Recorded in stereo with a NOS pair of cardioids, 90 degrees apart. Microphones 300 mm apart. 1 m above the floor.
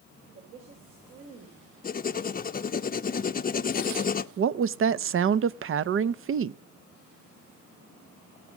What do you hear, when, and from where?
0.3 s a woman speaking: 65° right, 4 m
1.8 s writing: 30° left, 0.8 m
4.4 s a woman speaking: 45° right, 0.7 m